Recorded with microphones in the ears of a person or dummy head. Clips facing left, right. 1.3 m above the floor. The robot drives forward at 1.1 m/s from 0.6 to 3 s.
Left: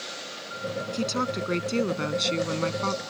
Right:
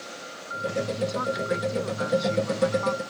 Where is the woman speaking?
40° left (ahead or behind); by 3.0 s 50° left (ahead or behind).